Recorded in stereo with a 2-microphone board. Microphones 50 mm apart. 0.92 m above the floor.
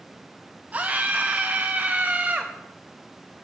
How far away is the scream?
About 0.7 m.